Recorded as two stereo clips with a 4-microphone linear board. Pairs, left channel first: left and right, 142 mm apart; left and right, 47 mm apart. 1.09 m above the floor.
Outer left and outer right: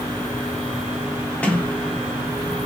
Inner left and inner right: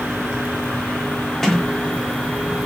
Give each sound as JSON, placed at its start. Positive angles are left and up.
{"t": 1.4, "sound": "a sliding door", "side_deg": 10, "distance_m": 0.8}